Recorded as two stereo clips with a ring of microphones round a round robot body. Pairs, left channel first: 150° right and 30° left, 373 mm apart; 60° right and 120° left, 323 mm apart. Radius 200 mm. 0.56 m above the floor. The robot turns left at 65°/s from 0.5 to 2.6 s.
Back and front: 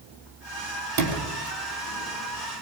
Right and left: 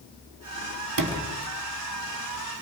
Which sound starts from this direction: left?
A sliding door, at 1.0 s.